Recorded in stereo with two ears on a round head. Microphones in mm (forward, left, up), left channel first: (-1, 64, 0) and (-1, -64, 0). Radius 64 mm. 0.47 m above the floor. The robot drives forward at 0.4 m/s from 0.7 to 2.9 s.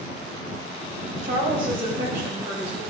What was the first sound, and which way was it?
A woman speaking, 60° right (ahead or behind).